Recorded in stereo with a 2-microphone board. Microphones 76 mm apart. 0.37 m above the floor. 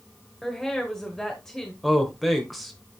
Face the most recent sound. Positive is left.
turn(degrees=0)  # may be behind; listen again after turning